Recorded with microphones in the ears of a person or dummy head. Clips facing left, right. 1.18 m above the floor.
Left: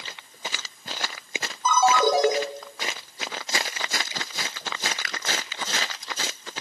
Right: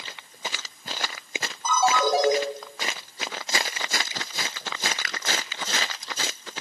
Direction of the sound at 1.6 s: 65° left (ahead or behind).